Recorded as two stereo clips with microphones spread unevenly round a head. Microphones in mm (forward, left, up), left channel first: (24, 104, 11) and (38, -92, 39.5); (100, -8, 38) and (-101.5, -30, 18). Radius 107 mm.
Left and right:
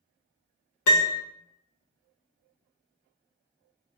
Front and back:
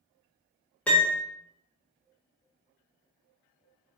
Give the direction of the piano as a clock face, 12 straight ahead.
9 o'clock.